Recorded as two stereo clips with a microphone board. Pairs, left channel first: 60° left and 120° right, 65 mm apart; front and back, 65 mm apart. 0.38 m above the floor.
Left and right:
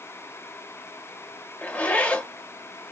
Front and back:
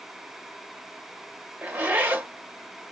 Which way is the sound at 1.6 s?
120° left.